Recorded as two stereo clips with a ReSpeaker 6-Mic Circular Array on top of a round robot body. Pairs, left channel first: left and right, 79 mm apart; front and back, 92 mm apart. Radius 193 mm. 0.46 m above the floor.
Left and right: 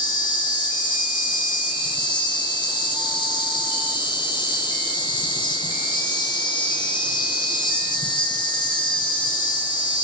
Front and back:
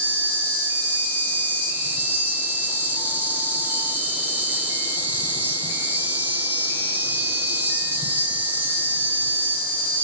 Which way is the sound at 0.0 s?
110° left.